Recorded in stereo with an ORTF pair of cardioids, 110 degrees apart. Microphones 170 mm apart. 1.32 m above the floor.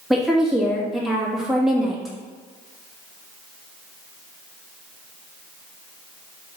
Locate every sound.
0.1 s a woman speaking: straight ahead, 2.5 m